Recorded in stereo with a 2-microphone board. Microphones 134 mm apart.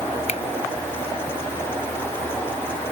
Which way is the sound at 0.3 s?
50° left (ahead or behind).